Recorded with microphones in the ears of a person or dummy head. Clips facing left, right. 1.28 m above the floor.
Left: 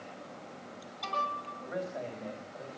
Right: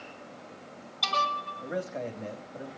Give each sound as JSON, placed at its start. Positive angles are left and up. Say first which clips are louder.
{"t": 1.6, "sound": "a man speaking", "louder": "right 3 dB", "side_deg": -35, "distance_m": 2.5}